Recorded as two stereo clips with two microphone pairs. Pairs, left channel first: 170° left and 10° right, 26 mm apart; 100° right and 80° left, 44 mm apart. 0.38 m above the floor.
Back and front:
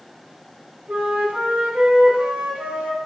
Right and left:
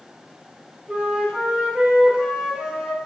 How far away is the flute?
About 0.7 m.